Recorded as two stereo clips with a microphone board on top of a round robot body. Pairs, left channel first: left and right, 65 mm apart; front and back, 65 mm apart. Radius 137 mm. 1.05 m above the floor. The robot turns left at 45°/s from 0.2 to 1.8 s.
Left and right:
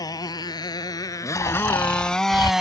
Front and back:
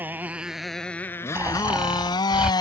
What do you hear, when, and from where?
0.0 s a motorcycle: 115° left; by 2.6 s 10° right
1.4 s snoring: 125° left; by 2.5 s 105° left